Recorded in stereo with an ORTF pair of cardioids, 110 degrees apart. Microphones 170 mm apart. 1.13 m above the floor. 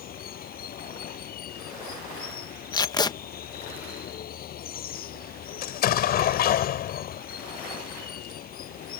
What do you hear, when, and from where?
0.0 s running water: 60° left
2.7 s tape being pulled: 25° left
5.6 s an explosion: 65° left